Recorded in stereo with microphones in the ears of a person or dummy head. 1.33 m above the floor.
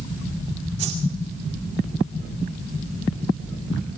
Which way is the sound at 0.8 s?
30° right (ahead or behind).